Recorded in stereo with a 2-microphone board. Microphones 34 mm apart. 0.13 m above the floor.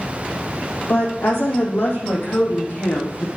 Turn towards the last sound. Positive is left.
turn(degrees=80)